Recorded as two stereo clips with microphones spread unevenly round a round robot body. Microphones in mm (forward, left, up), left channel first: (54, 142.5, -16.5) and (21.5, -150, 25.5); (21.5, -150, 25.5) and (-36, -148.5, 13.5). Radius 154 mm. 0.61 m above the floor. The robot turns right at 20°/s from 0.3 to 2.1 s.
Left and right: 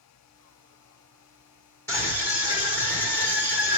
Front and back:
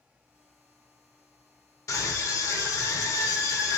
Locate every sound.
1.9 s a scream: 15° left, 1.5 m; by 3.8 s 20° left, 1.5 m